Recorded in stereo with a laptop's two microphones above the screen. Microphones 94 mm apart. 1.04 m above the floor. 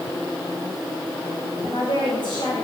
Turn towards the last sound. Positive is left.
turn(degrees=55)  # may be behind; listen again after turning